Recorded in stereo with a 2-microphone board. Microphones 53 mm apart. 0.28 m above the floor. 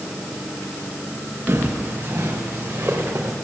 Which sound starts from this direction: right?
Footsteps, at 1.5 s.